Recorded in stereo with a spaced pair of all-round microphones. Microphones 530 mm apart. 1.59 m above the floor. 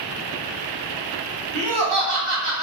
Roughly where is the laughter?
Right.